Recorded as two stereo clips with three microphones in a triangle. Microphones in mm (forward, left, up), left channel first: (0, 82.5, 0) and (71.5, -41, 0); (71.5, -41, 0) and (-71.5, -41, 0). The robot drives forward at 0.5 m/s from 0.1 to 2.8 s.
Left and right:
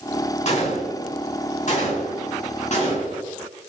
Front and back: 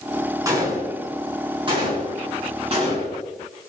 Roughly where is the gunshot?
Behind left.